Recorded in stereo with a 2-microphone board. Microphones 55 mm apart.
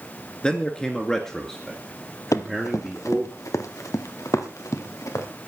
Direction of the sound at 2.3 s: 75° left (ahead or behind).